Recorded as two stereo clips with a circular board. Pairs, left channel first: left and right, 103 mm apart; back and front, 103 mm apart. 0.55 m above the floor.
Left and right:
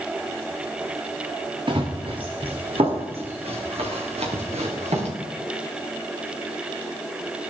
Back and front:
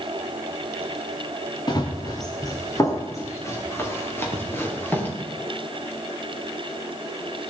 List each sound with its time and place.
1.7 s running footsteps: 130° right, 3 m; by 5.1 s 105° right, 5 m